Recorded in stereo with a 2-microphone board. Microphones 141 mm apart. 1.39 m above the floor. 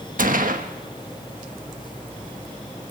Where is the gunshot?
75° right (ahead or behind), 1.5 m.